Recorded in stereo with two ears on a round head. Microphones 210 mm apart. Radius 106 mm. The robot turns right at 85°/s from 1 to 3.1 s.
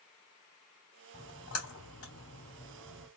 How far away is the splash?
About 2.5 m.